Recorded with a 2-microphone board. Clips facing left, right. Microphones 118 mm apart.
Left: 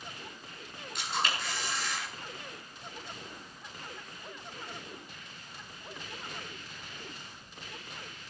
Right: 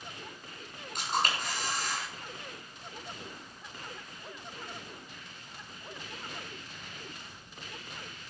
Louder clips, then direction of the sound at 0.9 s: Right 3 dB; 45° right (ahead or behind).